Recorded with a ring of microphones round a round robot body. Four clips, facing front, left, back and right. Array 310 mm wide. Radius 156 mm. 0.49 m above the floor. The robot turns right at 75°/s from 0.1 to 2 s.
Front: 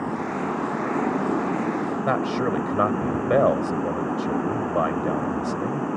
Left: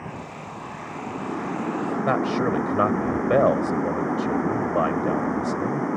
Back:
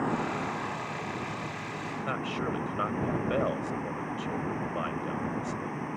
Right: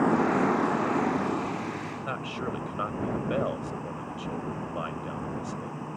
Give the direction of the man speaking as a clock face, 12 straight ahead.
10 o'clock.